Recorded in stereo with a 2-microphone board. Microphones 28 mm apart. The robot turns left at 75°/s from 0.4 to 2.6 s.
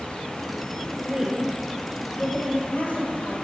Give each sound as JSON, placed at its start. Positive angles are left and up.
{"t": 1.0, "sound": "a woman speaking", "side_deg": -50, "distance_m": 4.0}